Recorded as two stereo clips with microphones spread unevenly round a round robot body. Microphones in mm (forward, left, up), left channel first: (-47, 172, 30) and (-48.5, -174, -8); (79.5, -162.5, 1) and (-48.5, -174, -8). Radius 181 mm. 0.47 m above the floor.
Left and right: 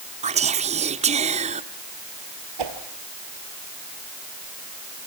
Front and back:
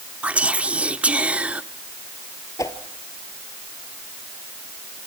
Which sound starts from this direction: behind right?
Whispering, at 0.2 s.